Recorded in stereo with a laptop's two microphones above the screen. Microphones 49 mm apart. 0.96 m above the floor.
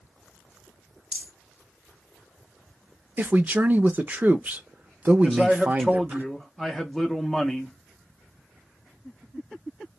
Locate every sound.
1.1 s a rattle: 10° right (ahead or behind), 1.5 m
3.2 s a man speaking: 35° right (ahead or behind), 0.5 m
5.2 s a man speaking: 5° left (ahead or behind), 0.6 m